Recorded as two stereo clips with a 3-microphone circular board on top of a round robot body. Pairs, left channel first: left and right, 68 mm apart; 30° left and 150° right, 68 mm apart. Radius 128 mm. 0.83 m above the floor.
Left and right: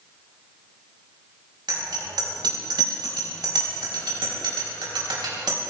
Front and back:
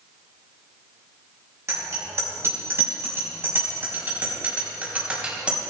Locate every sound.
1.7 s a bicycle bell: 100° right, 5.5 m; by 5.6 s 75° right, 4.5 m